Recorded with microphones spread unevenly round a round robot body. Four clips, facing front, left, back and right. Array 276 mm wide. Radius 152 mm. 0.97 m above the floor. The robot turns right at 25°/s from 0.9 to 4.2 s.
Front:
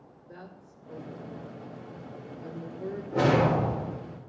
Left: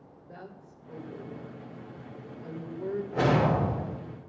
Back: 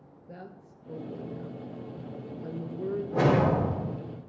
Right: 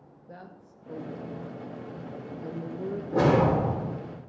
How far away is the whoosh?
About 3.5 m.